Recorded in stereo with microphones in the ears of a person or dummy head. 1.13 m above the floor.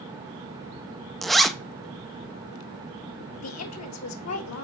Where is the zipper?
Centre (ahead or behind), 0.7 m.